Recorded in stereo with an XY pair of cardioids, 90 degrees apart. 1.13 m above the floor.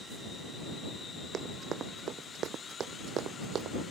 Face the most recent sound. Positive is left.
turn(degrees=-75)